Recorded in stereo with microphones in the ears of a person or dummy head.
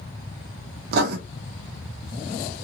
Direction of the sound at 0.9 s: 55° right (ahead or behind).